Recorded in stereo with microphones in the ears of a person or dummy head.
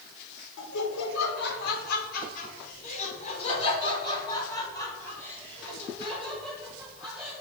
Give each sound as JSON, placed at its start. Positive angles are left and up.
{"t": 0.6, "sound": "laughter", "side_deg": 70, "distance_m": 4.0}